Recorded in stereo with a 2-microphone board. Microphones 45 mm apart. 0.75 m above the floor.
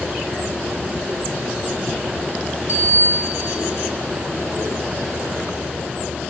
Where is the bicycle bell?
85° left, 5.5 m.